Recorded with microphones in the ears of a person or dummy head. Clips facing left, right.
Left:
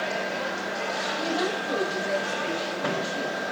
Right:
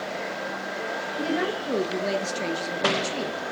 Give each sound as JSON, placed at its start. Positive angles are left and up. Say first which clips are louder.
{"t": 1.2, "sound": "a woman speaking", "louder": "right 3 dB", "side_deg": -30, "distance_m": 1.8}